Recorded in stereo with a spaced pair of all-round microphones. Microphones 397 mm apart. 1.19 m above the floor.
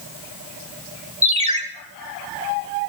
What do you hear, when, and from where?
1.2 s a ringtone: 15° right (ahead or behind), 1.6 m